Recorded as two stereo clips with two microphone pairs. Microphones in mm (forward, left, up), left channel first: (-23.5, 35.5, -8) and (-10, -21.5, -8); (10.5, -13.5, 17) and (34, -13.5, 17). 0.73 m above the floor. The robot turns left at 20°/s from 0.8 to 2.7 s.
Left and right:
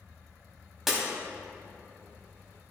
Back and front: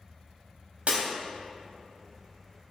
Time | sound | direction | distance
0.9 | breaking glass | 10° left | 1.8 m